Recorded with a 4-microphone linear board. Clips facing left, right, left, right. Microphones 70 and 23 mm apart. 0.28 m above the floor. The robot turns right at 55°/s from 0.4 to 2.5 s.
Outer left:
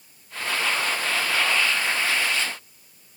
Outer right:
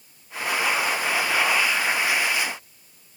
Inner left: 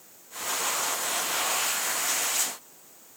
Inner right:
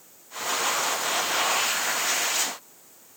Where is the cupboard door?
I don't hear a cupboard door.